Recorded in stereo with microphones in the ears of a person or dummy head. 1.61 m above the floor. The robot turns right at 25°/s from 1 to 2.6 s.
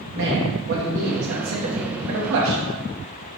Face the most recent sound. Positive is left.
turn(degrees=-75)